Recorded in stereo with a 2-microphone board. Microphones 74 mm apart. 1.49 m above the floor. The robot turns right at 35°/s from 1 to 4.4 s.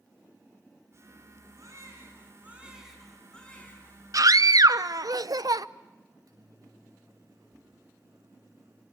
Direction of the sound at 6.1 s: 55° right (ahead or behind).